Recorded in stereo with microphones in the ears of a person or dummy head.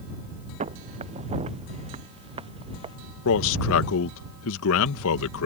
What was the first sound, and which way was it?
Footsteps, 35° right (ahead or behind).